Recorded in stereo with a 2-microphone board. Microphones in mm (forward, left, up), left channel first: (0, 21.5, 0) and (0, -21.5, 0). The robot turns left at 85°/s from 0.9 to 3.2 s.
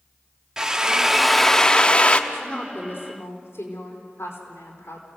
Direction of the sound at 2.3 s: Straight behind.